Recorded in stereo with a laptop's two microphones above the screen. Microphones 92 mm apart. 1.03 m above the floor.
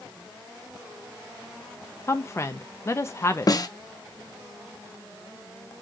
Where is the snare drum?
45° left (ahead or behind), 0.7 m.